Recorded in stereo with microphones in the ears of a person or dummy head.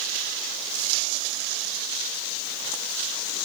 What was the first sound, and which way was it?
Only background noise.